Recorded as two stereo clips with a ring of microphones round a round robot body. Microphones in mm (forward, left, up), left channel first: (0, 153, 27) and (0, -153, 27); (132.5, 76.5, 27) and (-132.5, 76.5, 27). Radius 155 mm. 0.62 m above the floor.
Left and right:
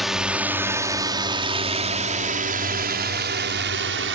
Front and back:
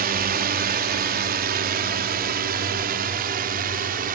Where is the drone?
Straight behind; by 4.2 s 130° right.